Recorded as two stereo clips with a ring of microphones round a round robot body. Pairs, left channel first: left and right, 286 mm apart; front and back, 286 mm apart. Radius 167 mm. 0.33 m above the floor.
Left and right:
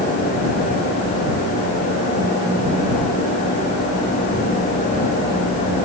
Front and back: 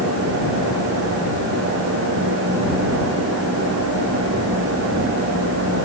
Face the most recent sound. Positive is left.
No sound to turn to.